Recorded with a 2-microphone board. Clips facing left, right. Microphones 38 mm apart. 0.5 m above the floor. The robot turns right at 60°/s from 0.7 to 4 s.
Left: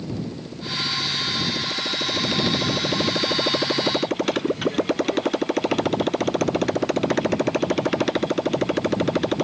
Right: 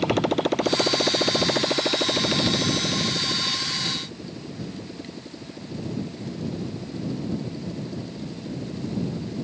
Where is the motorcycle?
105° right; by 9.4 s 95° left.